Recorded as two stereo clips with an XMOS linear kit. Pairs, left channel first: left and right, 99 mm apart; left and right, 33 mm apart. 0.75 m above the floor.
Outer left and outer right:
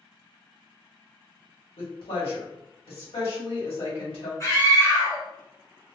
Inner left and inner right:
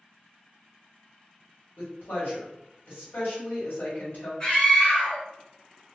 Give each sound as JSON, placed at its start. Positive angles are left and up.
{"t": 1.8, "sound": "a woman speaking", "side_deg": 70, "distance_m": 1.8}
{"t": 4.4, "sound": "a scream", "side_deg": 30, "distance_m": 1.1}